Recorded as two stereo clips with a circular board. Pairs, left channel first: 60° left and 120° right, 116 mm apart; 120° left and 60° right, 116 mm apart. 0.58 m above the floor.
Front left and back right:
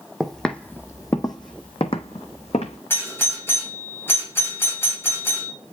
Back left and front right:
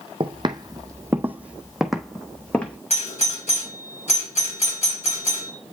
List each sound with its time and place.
0.2 s footsteps: 30° right, 1.0 m; by 2.8 s 45° left, 1.6 m
2.9 s a doorbell: 130° left, 4.5 m